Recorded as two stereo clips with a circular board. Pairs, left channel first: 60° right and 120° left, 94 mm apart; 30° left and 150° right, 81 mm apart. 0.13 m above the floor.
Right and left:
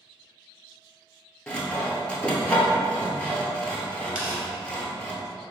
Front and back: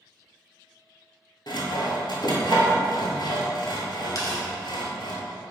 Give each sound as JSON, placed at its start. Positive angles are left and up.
{"t": 1.5, "sound": "sawing", "azimuth_deg": 15, "distance_m": 0.7}
{"t": 4.2, "sound": "tearing paper", "azimuth_deg": 40, "distance_m": 1.2}